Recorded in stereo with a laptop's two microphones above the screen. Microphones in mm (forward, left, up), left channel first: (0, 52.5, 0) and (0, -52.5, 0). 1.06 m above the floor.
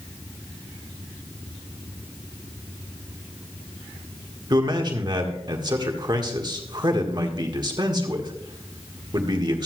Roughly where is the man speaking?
Right.